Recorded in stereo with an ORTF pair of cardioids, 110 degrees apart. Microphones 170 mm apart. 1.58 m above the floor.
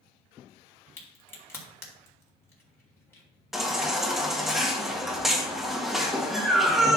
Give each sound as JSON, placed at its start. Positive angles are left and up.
{"t": 1.0, "sound": "a crack", "azimuth_deg": 15, "distance_m": 3.0}
{"t": 3.5, "sound": "a baby crying", "azimuth_deg": 0, "distance_m": 1.7}